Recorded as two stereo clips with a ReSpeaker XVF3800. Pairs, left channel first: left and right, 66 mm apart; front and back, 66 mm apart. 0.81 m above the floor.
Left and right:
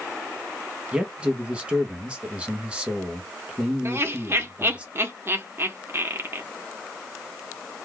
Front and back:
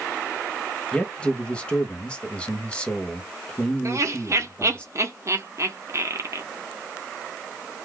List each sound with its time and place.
0.9 s a man speaking: 45° right, 0.9 m
3.9 s laughter: 140° right, 1.0 m